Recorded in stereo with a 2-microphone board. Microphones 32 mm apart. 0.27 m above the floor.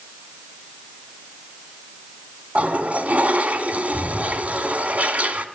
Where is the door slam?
No door slam in this recording.